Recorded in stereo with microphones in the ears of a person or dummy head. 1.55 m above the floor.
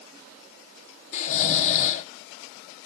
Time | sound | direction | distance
1.1 | snoring | 40° left (ahead or behind) | 0.6 m